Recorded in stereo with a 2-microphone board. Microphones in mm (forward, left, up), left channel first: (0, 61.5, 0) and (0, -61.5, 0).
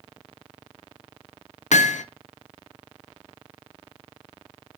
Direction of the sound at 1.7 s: 75° left (ahead or behind).